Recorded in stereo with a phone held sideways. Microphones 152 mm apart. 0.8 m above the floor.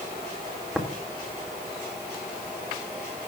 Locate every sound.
0.8 s tapping: 5° right (ahead or behind), 1.5 m